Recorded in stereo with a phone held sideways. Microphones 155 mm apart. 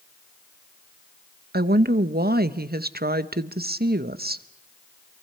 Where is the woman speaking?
70° right (ahead or behind), 0.8 m.